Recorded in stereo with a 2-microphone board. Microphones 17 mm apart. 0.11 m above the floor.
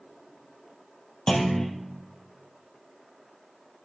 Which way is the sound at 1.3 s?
45° left (ahead or behind).